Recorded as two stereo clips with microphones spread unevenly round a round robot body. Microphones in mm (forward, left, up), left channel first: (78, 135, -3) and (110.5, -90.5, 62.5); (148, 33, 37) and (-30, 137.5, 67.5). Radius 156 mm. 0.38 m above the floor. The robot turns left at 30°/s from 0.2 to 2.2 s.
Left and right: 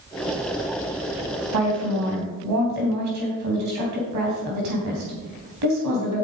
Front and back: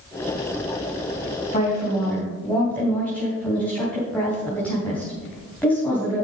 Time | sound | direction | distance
1.5 | a woman speaking | 90° right | 3.5 m